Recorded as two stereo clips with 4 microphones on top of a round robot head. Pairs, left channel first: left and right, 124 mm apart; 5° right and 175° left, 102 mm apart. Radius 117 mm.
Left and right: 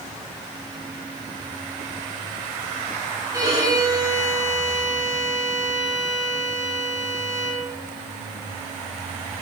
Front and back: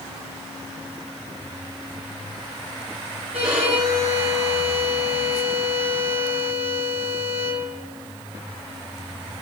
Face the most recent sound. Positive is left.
turn(degrees=-150)